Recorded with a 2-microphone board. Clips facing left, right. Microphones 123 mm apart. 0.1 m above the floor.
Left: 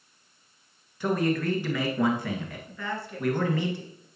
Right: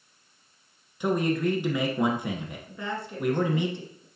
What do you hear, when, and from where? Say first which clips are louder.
1.0 s a man speaking: right 1 dB; 20° right (ahead or behind), 1.4 m
2.7 s a woman speaking: right 1 dB; 20° right (ahead or behind), 1.6 m